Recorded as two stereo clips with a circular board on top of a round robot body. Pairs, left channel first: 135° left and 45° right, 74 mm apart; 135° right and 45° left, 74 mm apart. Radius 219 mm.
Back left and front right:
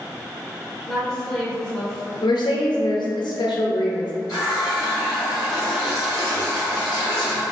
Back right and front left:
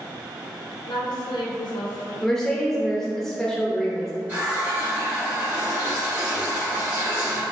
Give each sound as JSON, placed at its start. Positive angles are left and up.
{"t": 0.9, "sound": "a woman speaking", "azimuth_deg": -145, "distance_m": 0.6}
{"t": 2.2, "sound": "a woman speaking", "azimuth_deg": 140, "distance_m": 0.7}
{"t": 4.3, "sound": "a running tap", "azimuth_deg": 115, "distance_m": 0.5}